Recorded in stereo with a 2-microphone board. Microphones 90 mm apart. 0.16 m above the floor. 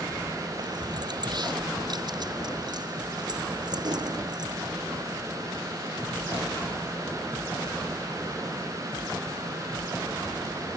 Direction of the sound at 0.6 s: 50° right (ahead or behind).